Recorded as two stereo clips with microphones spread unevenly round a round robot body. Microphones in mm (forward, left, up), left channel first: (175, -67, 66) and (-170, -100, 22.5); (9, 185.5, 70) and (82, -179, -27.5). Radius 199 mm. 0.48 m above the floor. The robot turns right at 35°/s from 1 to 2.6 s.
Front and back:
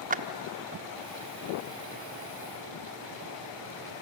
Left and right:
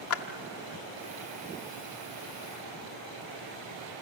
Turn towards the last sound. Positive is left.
turn(degrees=-155)